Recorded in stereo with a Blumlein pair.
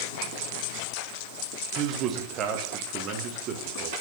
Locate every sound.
1.8 s a man speaking: 30° right, 1.6 m